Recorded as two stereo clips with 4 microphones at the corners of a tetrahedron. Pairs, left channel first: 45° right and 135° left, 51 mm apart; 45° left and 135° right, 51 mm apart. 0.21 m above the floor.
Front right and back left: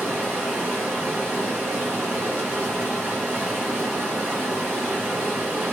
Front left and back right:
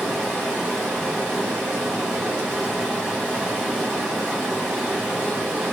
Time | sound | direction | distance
0.0 | running water | 160° left | 1.6 m